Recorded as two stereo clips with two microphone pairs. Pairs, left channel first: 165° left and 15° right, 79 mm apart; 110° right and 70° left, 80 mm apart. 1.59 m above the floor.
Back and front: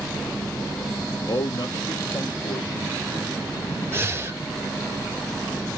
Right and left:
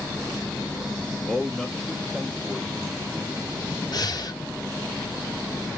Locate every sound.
1.3 s a man speaking: 170° left, 1.0 m
3.9 s breathing: 75° right, 1.3 m